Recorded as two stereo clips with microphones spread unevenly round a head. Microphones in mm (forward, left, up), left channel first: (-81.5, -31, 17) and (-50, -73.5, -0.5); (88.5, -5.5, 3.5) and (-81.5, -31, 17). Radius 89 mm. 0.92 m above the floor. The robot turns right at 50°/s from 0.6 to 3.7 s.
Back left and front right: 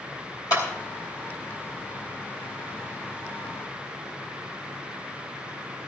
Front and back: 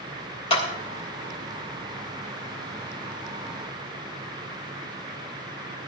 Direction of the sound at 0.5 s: 70° left.